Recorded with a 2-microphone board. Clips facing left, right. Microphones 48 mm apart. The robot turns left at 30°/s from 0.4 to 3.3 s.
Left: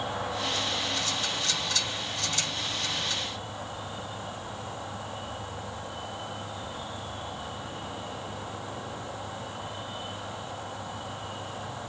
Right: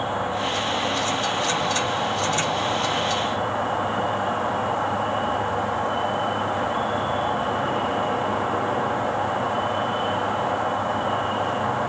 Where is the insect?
30° right, 1.3 m; by 11.9 s 120° right, 1.3 m.